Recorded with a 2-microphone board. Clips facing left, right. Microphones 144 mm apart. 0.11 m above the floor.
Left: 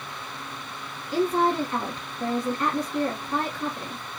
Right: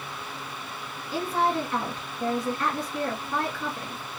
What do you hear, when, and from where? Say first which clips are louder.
1.1 s a woman speaking: left 3 dB; 15° left (ahead or behind), 1.4 m